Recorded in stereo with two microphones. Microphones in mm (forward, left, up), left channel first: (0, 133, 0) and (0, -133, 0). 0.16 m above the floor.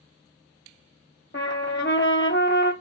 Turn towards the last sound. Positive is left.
turn(degrees=45)  # may be behind; listen again after turning